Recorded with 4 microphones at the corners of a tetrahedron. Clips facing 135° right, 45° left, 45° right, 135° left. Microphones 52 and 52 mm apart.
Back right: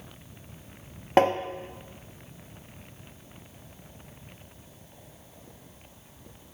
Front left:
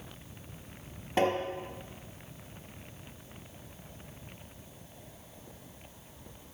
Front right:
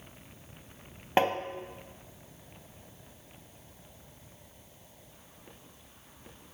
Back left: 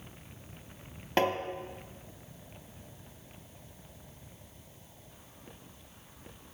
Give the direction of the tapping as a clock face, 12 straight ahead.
4 o'clock.